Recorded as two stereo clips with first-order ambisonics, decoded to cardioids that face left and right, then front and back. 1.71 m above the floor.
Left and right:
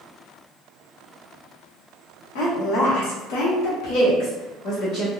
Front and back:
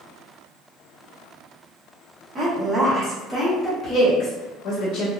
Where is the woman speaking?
115° left, 1.1 m; by 5.1 s 35° left, 1.0 m.